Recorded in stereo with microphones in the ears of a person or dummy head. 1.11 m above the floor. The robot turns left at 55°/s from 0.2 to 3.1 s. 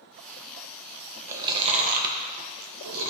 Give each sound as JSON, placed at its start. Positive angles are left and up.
{"t": 1.3, "sound": "chewing", "side_deg": -15, "distance_m": 1.0}